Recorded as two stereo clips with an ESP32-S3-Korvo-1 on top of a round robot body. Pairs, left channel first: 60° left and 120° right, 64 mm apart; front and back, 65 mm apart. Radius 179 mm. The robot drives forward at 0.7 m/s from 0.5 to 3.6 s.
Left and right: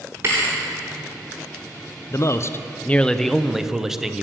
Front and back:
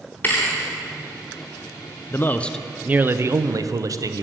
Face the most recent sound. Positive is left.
turn(degrees=155)